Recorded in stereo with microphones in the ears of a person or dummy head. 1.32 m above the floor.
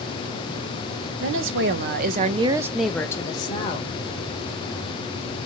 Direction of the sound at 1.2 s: 75° right (ahead or behind).